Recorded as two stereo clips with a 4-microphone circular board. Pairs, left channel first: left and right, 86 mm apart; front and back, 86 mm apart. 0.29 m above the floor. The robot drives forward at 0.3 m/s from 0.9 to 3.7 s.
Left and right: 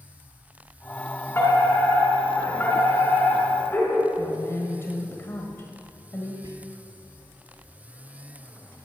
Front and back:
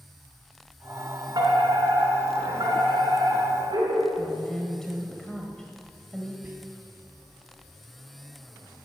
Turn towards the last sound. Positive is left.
turn(degrees=-120)